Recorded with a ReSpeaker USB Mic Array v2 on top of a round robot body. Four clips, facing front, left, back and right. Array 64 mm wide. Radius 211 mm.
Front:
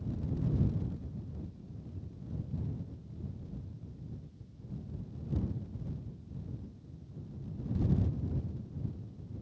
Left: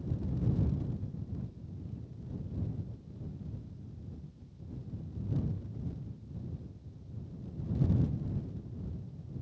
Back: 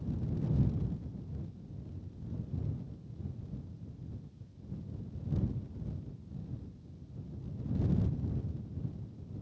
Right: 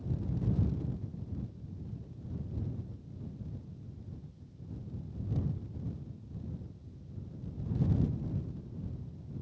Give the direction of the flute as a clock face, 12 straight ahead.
No flute in this recording.